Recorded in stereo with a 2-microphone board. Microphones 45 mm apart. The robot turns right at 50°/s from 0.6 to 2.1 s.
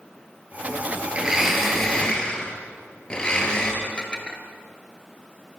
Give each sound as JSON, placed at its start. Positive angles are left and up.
{"t": 1.1, "sound": "a blender", "azimuth_deg": -25, "distance_m": 4.0}
{"t": 3.8, "sound": "dishes clattering", "side_deg": 25, "distance_m": 2.5}